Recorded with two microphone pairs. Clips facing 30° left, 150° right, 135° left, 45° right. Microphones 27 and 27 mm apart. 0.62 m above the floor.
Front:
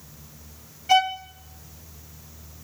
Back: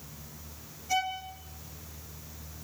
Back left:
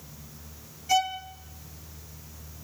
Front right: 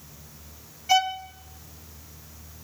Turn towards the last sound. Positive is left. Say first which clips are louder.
# front 10 dB, front right 3 dB
turn(degrees=20)